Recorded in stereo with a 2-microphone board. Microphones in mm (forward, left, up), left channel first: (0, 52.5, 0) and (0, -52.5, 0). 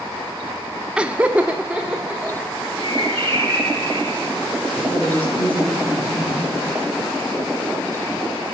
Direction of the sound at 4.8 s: 10° left (ahead or behind).